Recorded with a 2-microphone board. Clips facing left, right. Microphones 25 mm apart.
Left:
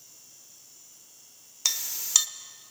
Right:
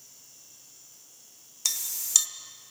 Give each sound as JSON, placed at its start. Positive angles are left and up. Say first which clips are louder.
{"t": 1.6, "sound": "a clink", "louder": "left 2 dB", "side_deg": 20, "distance_m": 0.5}